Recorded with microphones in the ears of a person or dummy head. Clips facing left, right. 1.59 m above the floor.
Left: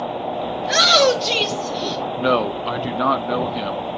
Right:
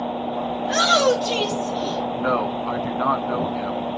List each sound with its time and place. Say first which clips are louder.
0.6 s a shout: left 3 dB; 30° left (ahead or behind), 3 m
2.1 s a man speaking: left 6 dB; 45° left (ahead or behind), 1.0 m